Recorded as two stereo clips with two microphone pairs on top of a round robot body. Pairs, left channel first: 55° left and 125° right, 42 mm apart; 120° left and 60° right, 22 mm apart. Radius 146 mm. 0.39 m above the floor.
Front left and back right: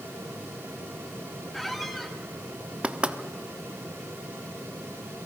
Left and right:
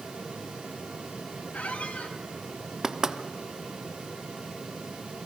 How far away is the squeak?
About 1.7 m.